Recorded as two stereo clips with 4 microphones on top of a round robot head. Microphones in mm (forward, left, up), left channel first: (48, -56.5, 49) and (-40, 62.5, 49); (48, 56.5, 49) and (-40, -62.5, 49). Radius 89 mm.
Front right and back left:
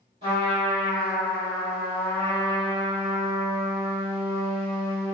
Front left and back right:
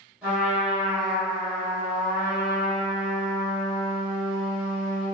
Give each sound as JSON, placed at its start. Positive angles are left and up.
{"t": 0.2, "sound": "a trumpet", "azimuth_deg": 155, "distance_m": 1.3}